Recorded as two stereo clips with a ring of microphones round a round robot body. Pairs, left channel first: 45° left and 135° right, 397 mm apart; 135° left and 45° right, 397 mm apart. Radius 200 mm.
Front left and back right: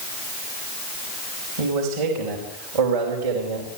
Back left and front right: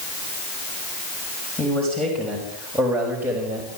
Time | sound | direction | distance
1.6 | a man speaking | 135° right | 6 m